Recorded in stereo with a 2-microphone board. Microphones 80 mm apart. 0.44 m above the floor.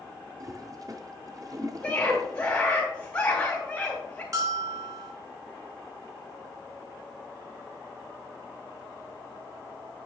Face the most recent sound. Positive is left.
turn(degrees=-40)  # may be behind; listen again after turning